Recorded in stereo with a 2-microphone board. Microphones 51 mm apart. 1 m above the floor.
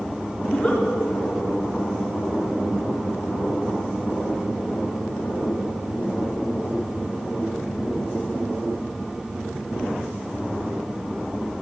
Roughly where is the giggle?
Centre.